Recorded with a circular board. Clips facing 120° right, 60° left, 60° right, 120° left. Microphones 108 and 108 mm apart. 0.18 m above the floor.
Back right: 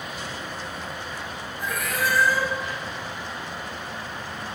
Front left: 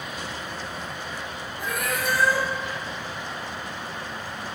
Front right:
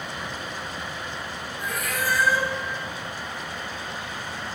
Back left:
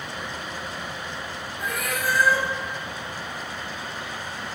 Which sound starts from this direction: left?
A cat meowing, at 1.6 s.